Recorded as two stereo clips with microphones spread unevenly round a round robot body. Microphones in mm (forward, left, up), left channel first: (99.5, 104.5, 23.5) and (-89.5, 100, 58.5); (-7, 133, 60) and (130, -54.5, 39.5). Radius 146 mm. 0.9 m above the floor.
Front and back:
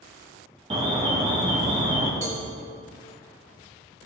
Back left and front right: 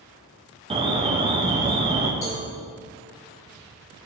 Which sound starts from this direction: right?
An alarm, at 0.7 s.